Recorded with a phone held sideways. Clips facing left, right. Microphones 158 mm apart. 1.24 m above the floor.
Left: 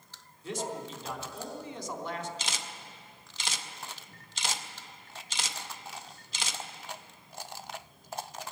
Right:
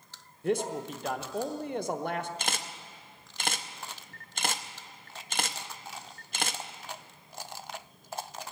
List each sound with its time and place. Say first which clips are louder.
0.4 s a man speaking: right 6 dB; 60° right (ahead or behind), 0.9 m
2.4 s a camera shutter: right 3 dB; 55° right (ahead or behind), 0.6 m